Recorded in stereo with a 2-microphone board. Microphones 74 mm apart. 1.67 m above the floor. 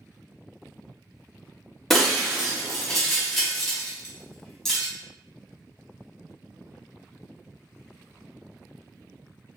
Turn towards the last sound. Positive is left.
turn(degrees=5)  # may be behind; listen again after turning